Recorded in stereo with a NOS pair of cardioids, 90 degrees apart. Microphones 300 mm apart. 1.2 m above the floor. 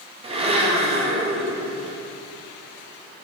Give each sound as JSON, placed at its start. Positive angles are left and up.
{"t": 0.2, "sound": "a blender", "azimuth_deg": -20, "distance_m": 0.6}